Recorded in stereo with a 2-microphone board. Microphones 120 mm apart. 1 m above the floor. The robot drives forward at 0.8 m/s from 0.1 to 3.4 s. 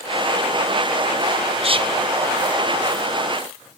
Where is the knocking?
I don't hear knocking.